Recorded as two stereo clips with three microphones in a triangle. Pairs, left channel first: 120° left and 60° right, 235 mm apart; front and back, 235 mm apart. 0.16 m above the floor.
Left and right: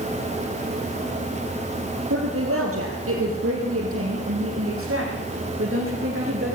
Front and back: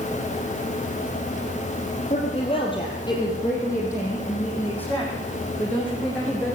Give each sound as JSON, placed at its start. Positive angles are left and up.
{"t": 2.1, "sound": "a woman speaking", "azimuth_deg": -60, "distance_m": 3.5}